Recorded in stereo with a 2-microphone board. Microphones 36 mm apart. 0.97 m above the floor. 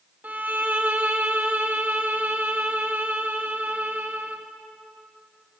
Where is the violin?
45° right (ahead or behind), 1.5 m.